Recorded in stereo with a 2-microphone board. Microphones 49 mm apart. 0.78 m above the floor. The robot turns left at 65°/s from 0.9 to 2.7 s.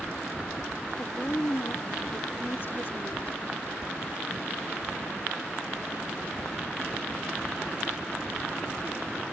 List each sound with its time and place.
1.0 s a woman speaking: 160° left; by 3.4 s 50° left